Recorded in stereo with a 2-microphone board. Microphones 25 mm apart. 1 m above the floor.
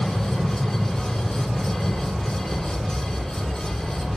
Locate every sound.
0.0 s an aircraft: 60° left (ahead or behind)